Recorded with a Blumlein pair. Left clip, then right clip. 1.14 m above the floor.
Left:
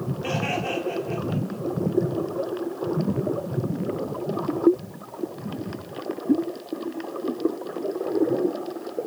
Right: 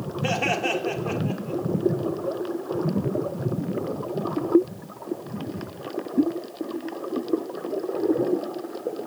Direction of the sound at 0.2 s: 20° right.